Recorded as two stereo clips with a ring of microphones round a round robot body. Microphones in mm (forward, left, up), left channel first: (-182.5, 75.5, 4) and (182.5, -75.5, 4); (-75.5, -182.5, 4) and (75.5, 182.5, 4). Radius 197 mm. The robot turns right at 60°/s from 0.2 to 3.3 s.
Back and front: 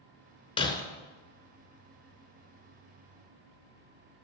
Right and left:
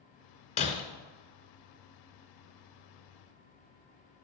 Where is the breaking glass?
150° right, 0.9 m; by 0.8 s 135° right, 0.9 m.